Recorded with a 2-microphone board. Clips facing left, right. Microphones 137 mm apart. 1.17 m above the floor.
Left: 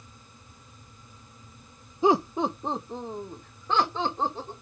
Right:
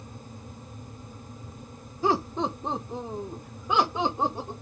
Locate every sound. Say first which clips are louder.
2.0 s laughter: left 3 dB; 20° left (ahead or behind), 0.7 m; by 4.5 s 15° right (ahead or behind), 2 m